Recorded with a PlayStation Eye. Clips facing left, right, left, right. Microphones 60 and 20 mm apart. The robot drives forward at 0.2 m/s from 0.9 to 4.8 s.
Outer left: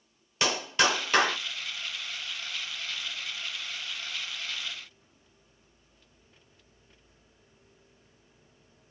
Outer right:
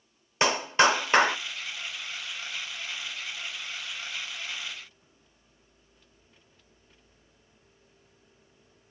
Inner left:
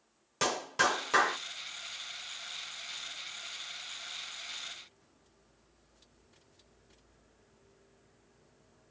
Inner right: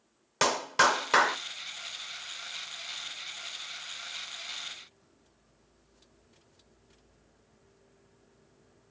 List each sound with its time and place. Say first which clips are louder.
0.4 s a clap: outer right 4 dB, inner right 5 dB; 30° right (ahead or behind), 0.8 m; by 1.4 s 25° right (ahead or behind), 0.9 m